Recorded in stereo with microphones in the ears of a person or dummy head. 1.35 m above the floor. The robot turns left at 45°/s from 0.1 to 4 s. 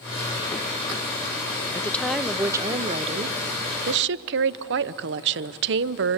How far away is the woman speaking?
About 0.6 m.